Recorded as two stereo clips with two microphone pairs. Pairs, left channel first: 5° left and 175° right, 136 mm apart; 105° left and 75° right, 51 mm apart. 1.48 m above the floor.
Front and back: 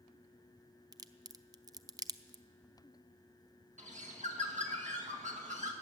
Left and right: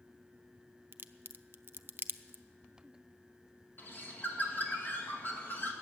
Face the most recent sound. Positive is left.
turn(degrees=155)